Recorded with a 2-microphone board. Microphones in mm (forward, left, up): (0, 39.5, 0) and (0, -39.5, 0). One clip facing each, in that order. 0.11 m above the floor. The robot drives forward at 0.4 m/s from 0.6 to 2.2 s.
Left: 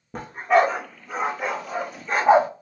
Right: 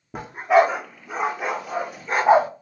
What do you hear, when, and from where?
0.1 s a dog barking: 5° right (ahead or behind), 1.3 m